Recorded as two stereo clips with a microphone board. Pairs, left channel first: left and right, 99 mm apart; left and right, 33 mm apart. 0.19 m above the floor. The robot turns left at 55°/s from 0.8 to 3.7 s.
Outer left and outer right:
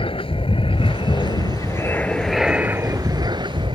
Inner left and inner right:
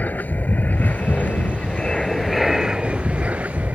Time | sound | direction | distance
0.0 | an aircraft | 85° left | ?